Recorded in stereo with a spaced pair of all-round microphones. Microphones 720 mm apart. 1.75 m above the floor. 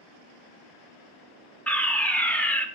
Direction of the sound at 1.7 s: Centre (ahead or behind).